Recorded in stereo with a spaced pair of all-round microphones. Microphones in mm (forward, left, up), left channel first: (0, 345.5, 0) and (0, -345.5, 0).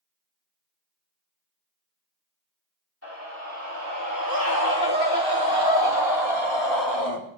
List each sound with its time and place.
3.0 s a scream: 20° left (ahead or behind), 4.5 m; by 7.2 s 55° left (ahead or behind), 4 m